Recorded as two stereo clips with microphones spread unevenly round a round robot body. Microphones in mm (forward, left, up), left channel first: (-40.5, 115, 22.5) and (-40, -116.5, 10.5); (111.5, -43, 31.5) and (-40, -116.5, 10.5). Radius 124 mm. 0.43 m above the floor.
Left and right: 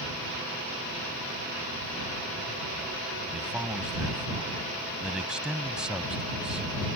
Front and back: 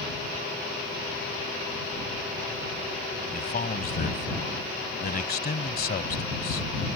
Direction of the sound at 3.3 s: 5° right.